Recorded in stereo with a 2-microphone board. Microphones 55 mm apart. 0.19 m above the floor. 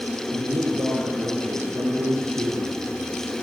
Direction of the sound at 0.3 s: 75° right (ahead or behind).